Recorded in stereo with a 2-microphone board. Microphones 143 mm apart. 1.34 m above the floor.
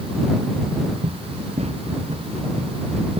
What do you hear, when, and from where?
1.0 s running footsteps: 50° right (ahead or behind)